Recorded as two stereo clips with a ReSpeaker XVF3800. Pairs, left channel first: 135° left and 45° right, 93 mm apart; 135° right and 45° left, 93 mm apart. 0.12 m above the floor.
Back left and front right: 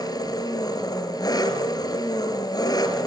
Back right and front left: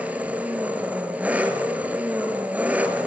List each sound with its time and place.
0.0 s an engine running: 115° left, 2.0 m